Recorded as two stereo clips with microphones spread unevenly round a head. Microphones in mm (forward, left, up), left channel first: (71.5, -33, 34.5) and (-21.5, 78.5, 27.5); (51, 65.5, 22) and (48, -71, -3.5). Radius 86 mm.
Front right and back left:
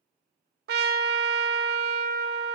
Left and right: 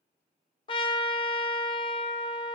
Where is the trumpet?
135° left, 0.6 m.